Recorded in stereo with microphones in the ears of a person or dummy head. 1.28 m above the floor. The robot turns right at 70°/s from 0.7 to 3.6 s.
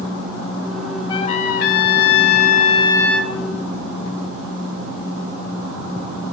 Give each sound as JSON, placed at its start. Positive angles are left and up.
{"t": 1.1, "sound": "a trumpet", "azimuth_deg": 30, "distance_m": 2.5}